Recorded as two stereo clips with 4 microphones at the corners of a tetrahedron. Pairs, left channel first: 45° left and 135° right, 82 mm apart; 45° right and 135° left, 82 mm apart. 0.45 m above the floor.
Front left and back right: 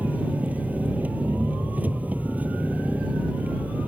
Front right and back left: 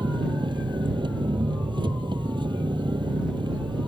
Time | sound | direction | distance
0.0 | an engine running | 155° left | ?